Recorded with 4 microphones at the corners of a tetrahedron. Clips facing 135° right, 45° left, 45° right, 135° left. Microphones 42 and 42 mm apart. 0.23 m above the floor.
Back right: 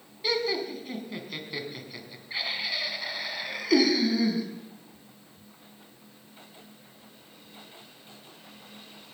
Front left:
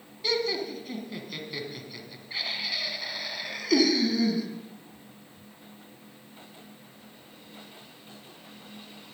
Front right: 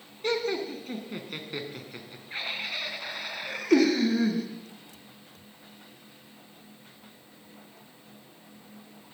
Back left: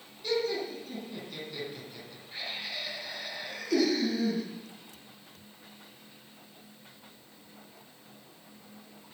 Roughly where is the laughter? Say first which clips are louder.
Even, front right 2 dB; ahead right.